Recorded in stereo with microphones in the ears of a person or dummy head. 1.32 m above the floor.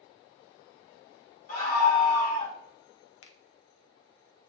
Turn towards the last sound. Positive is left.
turn(degrees=75)  # may be behind; listen again after turning